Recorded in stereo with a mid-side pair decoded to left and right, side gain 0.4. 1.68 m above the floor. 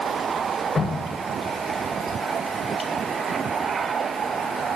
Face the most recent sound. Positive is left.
turn(degrees=30)